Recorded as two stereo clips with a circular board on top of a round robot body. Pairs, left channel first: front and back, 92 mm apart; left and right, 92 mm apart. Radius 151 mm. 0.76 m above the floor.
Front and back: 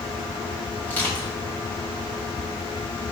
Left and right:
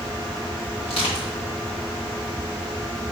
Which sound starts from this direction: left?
Crushing, at 0.8 s.